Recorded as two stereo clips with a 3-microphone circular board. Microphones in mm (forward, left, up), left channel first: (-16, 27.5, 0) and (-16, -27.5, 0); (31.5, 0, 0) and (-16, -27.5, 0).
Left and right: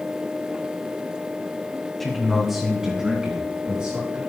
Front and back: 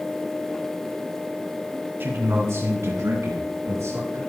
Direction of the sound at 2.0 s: Straight behind.